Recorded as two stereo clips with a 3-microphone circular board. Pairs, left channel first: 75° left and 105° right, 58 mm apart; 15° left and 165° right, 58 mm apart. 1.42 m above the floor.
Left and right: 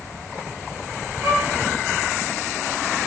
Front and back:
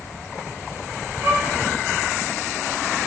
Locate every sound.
1.2 s a violin: 130° right, 1.1 m